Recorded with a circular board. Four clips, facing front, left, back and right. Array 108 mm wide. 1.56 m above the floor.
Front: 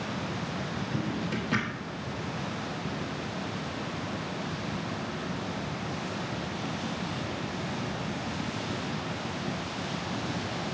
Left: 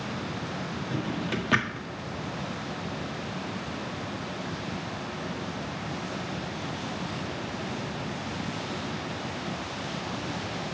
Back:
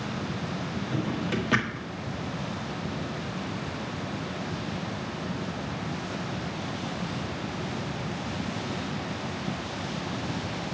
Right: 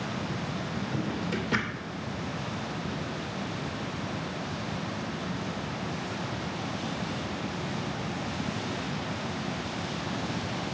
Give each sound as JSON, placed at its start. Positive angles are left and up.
{"t": 0.9, "sound": "a drawer", "azimuth_deg": 120, "distance_m": 1.4}